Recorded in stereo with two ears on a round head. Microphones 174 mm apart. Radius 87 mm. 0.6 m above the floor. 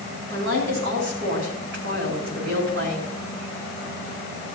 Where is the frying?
No frying in this recording.